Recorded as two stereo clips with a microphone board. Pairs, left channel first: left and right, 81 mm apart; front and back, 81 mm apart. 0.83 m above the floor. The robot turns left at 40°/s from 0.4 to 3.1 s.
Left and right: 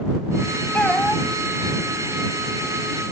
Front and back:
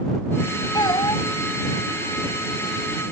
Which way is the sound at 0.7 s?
25° left.